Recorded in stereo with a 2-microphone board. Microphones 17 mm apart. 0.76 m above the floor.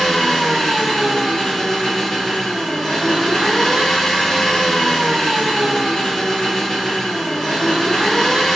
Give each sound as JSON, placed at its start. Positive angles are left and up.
{"t": 0.0, "sound": "an engine running", "side_deg": 25, "distance_m": 1.7}